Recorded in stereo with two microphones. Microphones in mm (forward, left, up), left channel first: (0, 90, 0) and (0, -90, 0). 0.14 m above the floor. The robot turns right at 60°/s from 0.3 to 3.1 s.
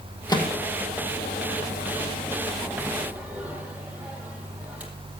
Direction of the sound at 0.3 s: 20° left (ahead or behind).